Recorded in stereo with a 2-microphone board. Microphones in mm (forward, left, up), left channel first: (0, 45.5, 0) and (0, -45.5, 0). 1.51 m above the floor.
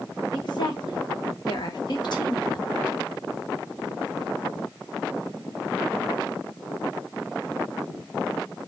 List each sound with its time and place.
0.3 s a woman speaking: 55° left (ahead or behind), 1.0 m